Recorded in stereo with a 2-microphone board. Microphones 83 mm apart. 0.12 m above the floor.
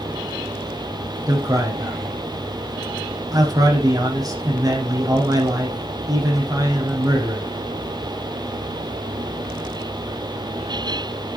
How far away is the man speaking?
About 5 m.